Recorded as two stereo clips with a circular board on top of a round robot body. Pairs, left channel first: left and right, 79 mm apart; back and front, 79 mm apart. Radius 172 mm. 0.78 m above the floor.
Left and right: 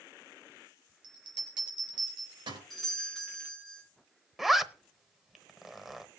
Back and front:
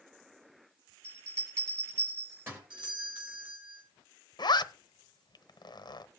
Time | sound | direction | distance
1.0 | a bell | 65° right | 4 m
2.7 | a doorbell | straight ahead | 6 m
4.4 | a zipper | straight behind | 0.9 m